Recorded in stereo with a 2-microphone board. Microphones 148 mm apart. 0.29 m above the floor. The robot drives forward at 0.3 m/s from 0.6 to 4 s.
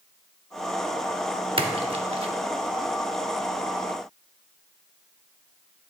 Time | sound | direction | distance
1.6 | a splash | 40° right (ahead or behind) | 0.6 m